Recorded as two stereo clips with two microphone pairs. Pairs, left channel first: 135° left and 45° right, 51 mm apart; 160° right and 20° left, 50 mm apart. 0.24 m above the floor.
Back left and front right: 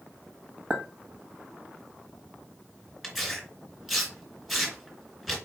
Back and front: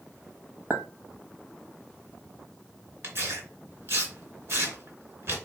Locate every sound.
0.7 s a clink: 15° left, 1.2 m
3.0 s tearing paper: 45° left, 2.5 m